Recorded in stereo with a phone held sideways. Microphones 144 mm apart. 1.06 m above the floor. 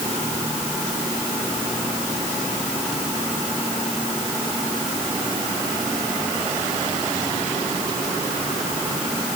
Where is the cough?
No cough in this recording.